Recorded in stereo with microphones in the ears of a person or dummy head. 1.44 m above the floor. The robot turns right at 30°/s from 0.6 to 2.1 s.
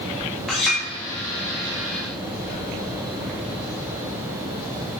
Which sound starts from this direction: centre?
A clink, at 0.5 s.